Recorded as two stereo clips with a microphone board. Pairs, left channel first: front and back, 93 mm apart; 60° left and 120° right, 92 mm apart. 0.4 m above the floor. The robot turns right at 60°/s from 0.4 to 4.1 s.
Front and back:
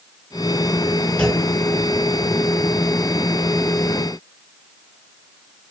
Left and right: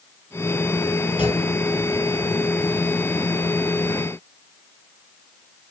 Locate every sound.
1.2 s a clunk: 75° left, 1.8 m; by 1.4 s 90° left, 1.8 m